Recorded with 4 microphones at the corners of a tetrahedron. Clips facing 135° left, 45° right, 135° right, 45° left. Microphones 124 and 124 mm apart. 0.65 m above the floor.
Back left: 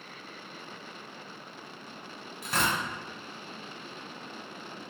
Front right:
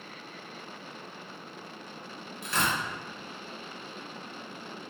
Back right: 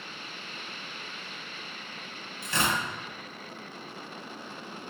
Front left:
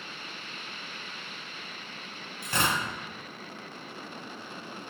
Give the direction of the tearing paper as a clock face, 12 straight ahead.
9 o'clock.